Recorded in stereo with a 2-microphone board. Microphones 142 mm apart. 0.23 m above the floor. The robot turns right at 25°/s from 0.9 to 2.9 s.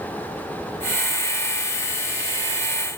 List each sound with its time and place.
Only background noise.